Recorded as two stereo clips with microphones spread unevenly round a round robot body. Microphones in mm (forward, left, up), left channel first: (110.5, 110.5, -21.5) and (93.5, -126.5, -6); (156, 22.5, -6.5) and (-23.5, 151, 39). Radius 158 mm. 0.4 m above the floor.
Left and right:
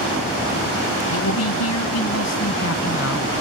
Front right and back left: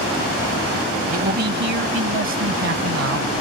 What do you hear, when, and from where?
1.1 s a man speaking: 90° left; by 3.3 s 135° left